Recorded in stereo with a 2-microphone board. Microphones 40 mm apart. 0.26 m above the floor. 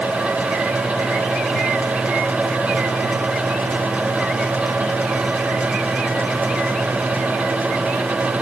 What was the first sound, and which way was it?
Only background noise.